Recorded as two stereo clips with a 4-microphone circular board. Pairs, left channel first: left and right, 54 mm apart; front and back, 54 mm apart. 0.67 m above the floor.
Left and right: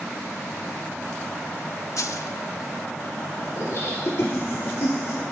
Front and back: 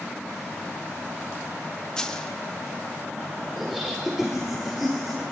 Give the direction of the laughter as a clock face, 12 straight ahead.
9 o'clock.